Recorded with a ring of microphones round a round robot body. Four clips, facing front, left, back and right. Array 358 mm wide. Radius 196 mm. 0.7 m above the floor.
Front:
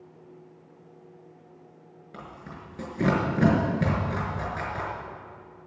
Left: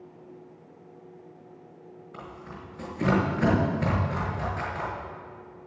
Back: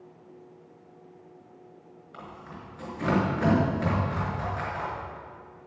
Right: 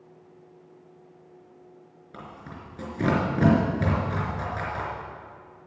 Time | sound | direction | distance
2.1 | tearing paper | 45° right | 5.5 m